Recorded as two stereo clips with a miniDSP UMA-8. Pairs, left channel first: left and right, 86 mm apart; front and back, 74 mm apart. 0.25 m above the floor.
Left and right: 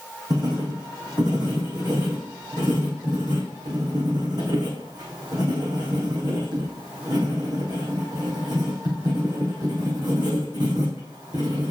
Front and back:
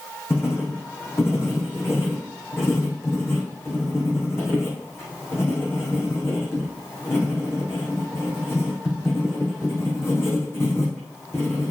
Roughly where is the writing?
Ahead right.